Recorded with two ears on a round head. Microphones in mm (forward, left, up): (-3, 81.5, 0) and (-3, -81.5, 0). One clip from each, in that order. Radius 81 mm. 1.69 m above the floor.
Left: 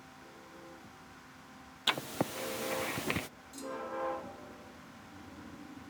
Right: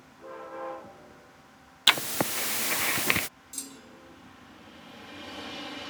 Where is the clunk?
60° right (ahead or behind).